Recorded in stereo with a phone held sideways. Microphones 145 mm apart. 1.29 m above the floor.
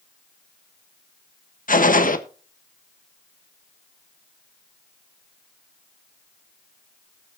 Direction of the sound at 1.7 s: 80° left.